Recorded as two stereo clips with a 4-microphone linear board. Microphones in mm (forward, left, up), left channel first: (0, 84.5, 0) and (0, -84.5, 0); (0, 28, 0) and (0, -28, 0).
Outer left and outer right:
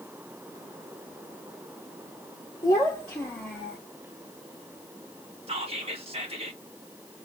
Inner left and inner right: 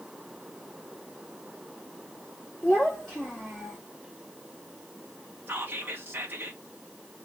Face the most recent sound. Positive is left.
turn(degrees=-35)  # may be behind; listen again after turning